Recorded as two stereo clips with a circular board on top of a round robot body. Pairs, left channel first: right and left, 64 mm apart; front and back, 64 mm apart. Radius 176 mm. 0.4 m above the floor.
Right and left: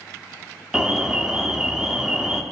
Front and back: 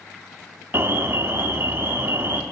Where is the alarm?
165° left, 1.5 m.